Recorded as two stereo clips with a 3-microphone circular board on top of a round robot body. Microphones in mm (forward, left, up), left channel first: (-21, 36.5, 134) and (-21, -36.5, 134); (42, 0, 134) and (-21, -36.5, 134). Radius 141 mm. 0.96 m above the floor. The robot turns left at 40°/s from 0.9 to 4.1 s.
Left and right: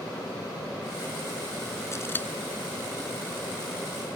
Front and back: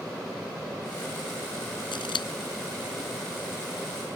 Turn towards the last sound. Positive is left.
turn(degrees=-50)